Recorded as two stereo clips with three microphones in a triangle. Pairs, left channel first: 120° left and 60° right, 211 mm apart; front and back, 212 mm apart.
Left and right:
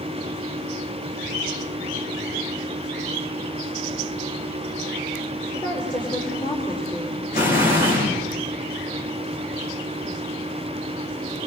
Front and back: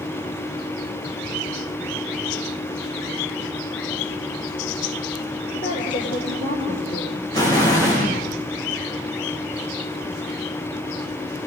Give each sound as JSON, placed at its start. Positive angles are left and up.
{"t": 5.5, "sound": "a woman speaking", "azimuth_deg": 50, "distance_m": 8.5}
{"t": 7.3, "sound": "an explosion", "azimuth_deg": 70, "distance_m": 9.5}